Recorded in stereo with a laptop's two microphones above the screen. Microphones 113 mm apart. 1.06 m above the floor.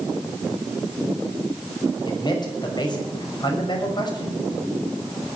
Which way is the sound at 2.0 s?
40° left (ahead or behind).